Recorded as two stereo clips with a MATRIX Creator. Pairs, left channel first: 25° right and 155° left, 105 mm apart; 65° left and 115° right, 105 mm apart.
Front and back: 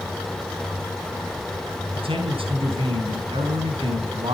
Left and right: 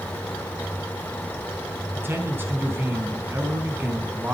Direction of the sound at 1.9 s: Straight behind.